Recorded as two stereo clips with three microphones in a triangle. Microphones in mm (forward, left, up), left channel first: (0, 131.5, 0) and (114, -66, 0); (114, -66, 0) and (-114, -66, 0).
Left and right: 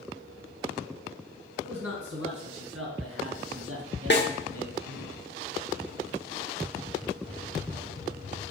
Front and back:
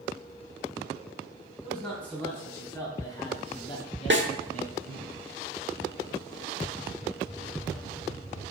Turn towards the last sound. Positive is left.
turn(degrees=150)